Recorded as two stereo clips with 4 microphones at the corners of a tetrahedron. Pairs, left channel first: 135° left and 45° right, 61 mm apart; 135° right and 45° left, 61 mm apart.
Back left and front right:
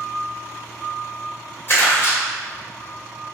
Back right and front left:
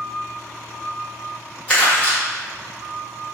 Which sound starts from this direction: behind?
Crumpling, at 1.7 s.